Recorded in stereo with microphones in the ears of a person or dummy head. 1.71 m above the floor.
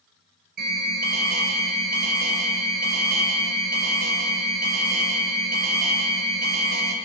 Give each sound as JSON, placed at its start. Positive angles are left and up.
{"t": 0.6, "sound": "an alarm", "side_deg": -50, "distance_m": 6.0}